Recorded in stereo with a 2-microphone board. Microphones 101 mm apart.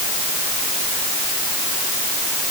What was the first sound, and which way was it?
Only background noise.